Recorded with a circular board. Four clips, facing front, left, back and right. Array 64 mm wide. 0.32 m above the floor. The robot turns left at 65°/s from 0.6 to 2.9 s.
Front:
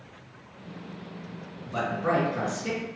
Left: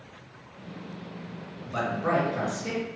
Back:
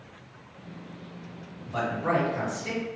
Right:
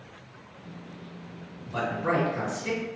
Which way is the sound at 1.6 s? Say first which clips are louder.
Even, front 1 dB; 80° left.